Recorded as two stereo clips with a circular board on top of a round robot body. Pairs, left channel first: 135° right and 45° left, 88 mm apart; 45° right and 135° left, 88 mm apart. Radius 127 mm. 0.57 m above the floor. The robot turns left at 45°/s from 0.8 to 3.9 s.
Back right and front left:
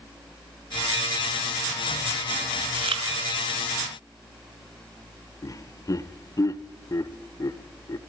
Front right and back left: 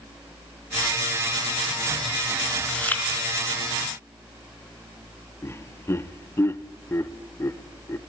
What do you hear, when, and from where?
2.7 s chewing: 40° left, 2.5 m; by 3.0 s 20° left, 2.5 m
5.4 s laughter: 100° right, 1.0 m